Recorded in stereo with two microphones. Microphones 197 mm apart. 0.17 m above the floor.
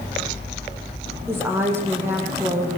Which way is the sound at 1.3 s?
10° right (ahead or behind).